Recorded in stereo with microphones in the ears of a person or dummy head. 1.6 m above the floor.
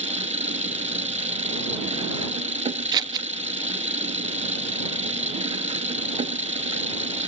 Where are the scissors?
20° right (ahead or behind).